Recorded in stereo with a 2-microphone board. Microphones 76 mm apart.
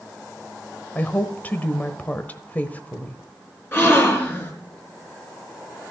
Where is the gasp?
25° left (ahead or behind), 3.5 m.